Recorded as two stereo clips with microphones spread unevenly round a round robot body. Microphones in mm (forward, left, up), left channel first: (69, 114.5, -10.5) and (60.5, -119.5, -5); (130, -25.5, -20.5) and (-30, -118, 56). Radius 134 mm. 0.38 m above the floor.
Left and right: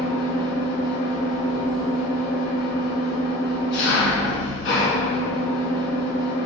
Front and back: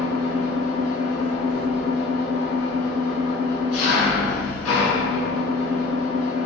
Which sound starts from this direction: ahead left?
An engine running, at 0.0 s.